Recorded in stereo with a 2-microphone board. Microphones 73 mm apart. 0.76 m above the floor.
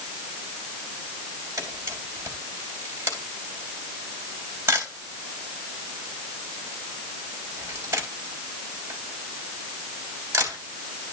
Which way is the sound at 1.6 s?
35° right (ahead or behind).